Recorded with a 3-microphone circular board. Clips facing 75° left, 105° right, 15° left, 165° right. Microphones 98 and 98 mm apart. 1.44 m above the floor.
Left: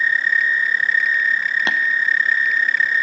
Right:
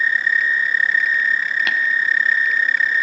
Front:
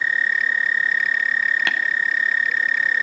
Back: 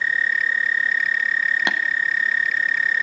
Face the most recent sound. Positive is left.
turn(degrees=125)